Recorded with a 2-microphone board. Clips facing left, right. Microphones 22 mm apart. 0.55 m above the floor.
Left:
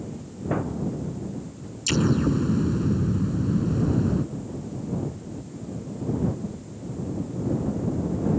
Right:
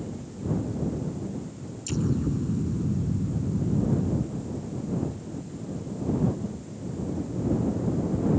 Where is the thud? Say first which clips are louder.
Left 2 dB; 75° left (ahead or behind).